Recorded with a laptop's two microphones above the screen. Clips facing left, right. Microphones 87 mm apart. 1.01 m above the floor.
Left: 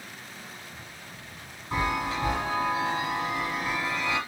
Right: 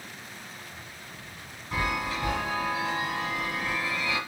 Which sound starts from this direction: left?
A chime, at 1.7 s.